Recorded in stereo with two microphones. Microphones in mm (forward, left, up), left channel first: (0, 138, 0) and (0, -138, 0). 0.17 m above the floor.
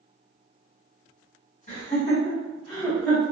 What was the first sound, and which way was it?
Laughter, 25° left (ahead or behind).